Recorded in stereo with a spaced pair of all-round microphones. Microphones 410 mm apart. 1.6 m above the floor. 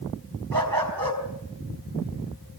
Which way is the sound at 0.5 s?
55° right (ahead or behind).